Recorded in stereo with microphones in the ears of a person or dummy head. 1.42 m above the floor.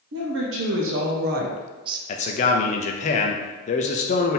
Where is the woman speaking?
55° right (ahead or behind), 1.0 m; by 2.0 s 25° right (ahead or behind), 0.7 m.